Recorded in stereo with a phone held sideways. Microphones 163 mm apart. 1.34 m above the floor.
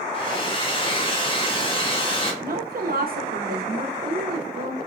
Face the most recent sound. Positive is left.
turn(degrees=-65)  # may be behind; listen again after turning